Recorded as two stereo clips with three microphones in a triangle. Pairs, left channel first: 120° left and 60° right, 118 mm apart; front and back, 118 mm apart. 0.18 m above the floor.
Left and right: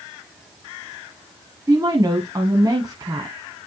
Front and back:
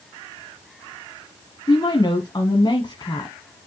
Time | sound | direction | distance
1.7 | a woman speaking | 20° right | 1.3 m